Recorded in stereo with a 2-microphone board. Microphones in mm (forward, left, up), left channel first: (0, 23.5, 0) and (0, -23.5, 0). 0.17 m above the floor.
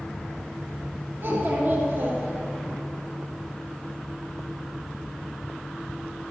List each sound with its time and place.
1.2 s a child speaking: 50° right (ahead or behind), 2.5 m